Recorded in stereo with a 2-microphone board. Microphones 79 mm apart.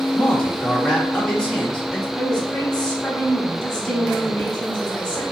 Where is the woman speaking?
15° left (ahead or behind), 1.3 m.